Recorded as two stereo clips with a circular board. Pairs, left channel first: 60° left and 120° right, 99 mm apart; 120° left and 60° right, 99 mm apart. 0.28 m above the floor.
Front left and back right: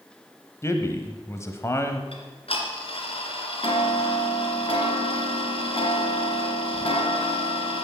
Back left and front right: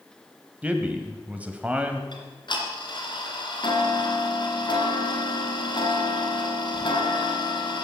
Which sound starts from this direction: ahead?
A man speaking, at 0.6 s.